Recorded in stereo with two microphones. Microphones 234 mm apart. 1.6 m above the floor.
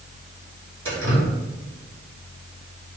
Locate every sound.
0.8 s dripping: 70° right (ahead or behind), 3 m